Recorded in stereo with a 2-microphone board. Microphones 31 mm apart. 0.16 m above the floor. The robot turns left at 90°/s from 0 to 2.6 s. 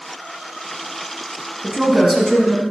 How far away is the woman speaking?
About 1.1 m.